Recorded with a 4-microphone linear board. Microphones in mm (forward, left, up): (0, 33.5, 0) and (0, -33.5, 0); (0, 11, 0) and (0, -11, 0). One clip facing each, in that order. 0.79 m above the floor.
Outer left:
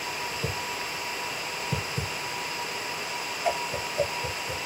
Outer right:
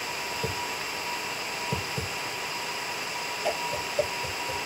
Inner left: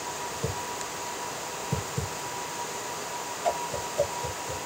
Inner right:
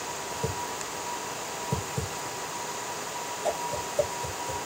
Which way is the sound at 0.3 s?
20° left (ahead or behind).